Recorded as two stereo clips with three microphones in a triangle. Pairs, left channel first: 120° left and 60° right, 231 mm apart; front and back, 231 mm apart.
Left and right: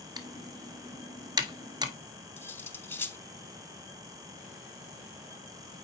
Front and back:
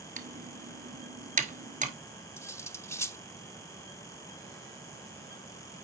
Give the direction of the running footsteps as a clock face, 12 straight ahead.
I don't hear running footsteps.